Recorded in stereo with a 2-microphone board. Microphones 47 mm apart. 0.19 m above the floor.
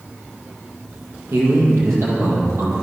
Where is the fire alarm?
I don't hear a fire alarm.